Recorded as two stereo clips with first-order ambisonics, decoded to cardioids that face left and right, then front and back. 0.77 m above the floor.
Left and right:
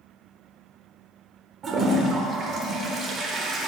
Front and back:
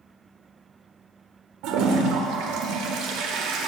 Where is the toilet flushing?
155° right, 1.1 m.